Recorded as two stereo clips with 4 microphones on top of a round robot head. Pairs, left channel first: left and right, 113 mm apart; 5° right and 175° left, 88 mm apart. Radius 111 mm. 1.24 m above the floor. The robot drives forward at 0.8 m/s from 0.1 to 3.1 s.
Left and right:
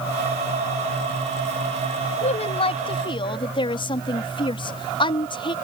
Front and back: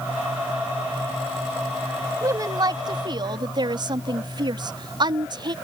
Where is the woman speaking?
120° left; by 5.5 s 135° left.